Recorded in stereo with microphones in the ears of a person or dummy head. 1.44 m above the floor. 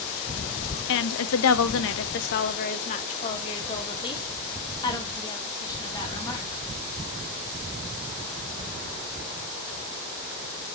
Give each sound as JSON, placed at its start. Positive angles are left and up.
{"t": 0.9, "sound": "a woman speaking", "side_deg": 60, "distance_m": 0.6}